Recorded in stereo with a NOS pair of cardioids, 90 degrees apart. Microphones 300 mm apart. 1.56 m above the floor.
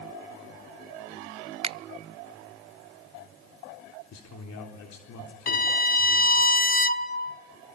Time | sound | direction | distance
1.6 | a finger snap | 20° right | 0.6 m
4.1 | a man speaking | 65° left | 3.5 m
5.5 | a violin | 30° left | 0.8 m